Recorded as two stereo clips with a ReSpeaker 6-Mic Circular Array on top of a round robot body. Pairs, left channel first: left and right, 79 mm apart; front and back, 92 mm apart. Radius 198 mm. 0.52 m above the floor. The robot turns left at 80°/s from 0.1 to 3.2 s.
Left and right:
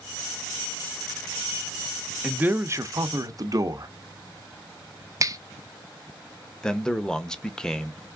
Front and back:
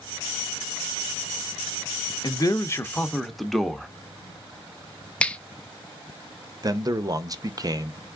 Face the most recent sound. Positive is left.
turn(degrees=170)